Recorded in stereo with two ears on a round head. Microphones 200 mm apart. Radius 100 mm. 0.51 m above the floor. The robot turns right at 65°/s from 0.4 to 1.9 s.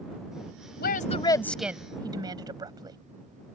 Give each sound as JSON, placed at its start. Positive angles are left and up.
{"t": 0.8, "sound": "a woman speaking", "azimuth_deg": 130}